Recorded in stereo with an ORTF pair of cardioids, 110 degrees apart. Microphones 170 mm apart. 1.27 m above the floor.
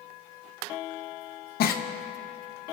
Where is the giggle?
65° left, 1.0 m.